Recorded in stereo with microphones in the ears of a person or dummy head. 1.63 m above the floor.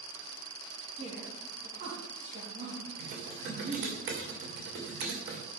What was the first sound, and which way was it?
A woman speaking, 45° right (ahead or behind).